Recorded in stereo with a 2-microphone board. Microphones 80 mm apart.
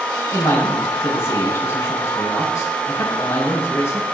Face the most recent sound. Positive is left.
turn(degrees=35)  # may be behind; listen again after turning